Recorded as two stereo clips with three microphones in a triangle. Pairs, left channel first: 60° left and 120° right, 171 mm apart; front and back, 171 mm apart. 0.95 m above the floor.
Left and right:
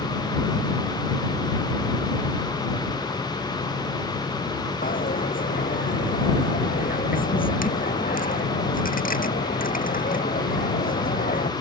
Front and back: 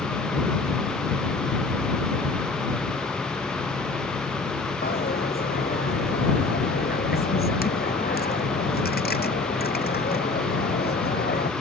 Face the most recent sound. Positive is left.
turn(degrees=25)